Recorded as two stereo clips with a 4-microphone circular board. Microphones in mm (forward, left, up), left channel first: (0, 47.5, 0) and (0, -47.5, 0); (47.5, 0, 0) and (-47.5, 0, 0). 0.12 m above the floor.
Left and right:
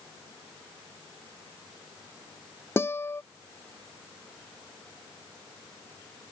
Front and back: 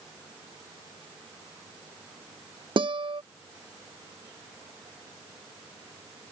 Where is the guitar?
155° left.